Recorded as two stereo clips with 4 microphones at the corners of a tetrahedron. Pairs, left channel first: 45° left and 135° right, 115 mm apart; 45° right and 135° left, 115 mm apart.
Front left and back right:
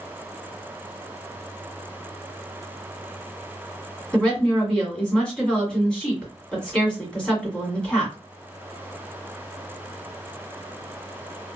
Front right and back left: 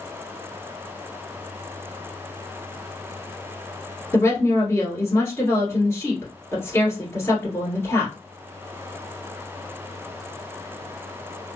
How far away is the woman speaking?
About 1.7 m.